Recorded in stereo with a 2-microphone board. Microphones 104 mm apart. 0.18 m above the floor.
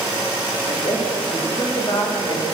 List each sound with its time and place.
0.7 s a woman speaking: 40° left (ahead or behind), 9 m; by 2.5 s 50° left (ahead or behind), 9.5 m